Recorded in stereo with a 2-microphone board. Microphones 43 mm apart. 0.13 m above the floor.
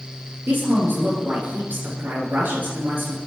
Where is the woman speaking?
55° right (ahead or behind), 2.5 m.